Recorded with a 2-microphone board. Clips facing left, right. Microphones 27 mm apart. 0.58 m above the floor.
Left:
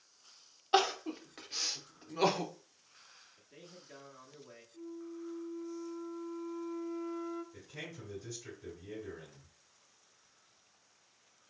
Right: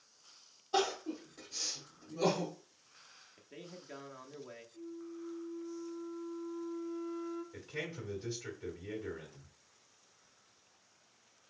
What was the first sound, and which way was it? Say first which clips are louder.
Crying: left 3 dB; 60° left (ahead or behind).